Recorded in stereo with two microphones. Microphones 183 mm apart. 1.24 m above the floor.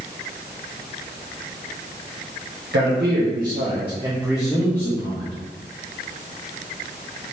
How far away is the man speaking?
About 0.8 m.